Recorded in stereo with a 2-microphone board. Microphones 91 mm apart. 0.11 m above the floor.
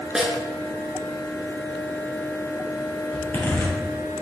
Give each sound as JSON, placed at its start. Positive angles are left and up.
{"t": 0.1, "sound": "a snare drum", "side_deg": -5, "distance_m": 0.9}
{"t": 3.1, "sound": "a zipper", "side_deg": 25, "distance_m": 2.5}